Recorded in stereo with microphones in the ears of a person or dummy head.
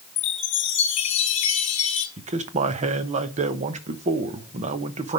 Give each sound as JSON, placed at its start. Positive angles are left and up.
{"t": 0.2, "sound": "a chime", "side_deg": 35, "distance_m": 1.4}
{"t": 2.2, "sound": "a man speaking", "side_deg": -35, "distance_m": 0.9}